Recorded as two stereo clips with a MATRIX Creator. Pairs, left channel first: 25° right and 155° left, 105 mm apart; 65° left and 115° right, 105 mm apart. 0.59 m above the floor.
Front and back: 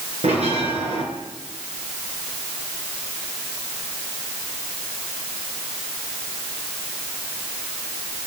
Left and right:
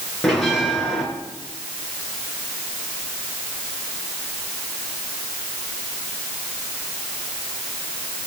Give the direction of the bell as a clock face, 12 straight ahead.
7 o'clock.